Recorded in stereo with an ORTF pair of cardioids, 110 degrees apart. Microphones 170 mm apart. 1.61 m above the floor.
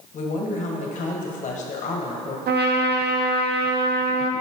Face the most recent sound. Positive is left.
turn(degrees=-70)